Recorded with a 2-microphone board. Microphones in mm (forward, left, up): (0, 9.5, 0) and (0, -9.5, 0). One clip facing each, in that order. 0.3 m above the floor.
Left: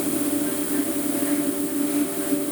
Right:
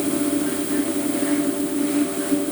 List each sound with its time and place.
Only background noise.